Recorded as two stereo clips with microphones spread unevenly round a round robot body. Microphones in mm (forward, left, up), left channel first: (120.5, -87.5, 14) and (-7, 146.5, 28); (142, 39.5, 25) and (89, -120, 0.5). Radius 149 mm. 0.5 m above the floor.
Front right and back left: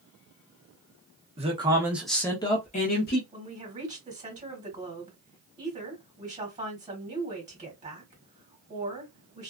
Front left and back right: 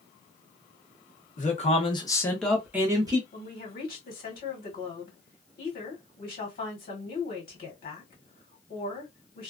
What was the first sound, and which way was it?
A man speaking, 60° left.